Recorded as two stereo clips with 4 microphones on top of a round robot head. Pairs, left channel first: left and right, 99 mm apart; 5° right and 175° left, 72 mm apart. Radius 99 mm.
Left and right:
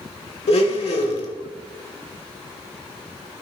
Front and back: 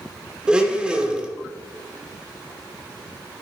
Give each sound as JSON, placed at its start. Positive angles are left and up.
{"t": 0.5, "sound": "a blender", "azimuth_deg": 100, "distance_m": 1.6}